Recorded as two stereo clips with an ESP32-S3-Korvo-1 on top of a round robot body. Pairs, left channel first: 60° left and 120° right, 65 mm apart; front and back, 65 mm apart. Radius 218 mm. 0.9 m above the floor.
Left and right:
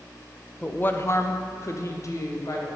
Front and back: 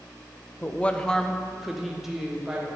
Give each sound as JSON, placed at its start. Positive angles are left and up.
{"t": 0.6, "sound": "a woman speaking", "azimuth_deg": 10, "distance_m": 0.9}